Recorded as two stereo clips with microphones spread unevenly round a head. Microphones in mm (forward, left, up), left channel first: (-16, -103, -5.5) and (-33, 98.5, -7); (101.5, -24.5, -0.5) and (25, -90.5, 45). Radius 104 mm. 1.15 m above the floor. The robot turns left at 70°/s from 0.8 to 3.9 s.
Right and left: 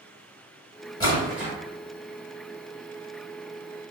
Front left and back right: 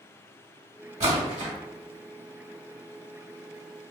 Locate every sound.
1.0 s a splash: 155° right, 1.7 m; by 1.5 s 165° left, 1.7 m